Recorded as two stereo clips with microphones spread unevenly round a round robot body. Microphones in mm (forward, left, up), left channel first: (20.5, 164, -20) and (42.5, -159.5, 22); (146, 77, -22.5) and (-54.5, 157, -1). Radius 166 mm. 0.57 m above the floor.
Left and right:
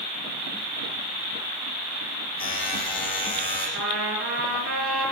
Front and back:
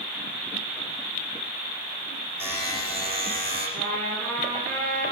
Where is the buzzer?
20° left, 7.5 m.